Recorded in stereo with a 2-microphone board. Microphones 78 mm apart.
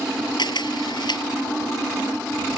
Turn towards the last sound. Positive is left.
turn(degrees=70)  # may be behind; listen again after turning